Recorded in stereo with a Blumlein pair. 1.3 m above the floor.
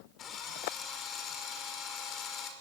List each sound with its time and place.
0.2 s a drill: 30° left, 5.5 m